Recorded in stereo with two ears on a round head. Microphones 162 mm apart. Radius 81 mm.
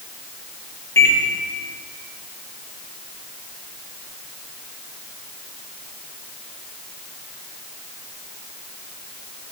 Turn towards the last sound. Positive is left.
turn(degrees=15)  # may be behind; listen again after turning